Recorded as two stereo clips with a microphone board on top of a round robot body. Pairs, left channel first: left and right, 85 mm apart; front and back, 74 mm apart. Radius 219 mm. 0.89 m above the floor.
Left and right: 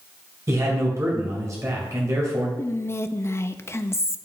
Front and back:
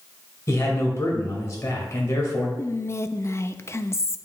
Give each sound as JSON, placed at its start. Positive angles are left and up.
{"t": 0.5, "sound": "a man speaking", "azimuth_deg": -45, "distance_m": 1.9}
{"t": 2.6, "sound": "whispering", "azimuth_deg": 40, "distance_m": 0.7}